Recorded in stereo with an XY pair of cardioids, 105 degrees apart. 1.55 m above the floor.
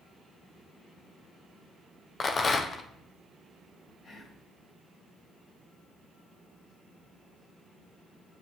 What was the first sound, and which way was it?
A rattle, 40° left.